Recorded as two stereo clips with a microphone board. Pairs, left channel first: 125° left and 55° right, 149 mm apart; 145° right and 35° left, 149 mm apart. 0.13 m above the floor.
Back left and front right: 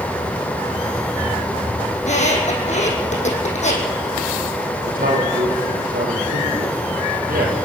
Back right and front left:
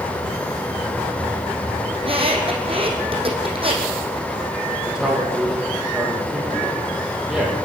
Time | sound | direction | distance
1.9 | a squeak | 85° left | 4 m
4.8 | a man speaking | 50° right | 6.5 m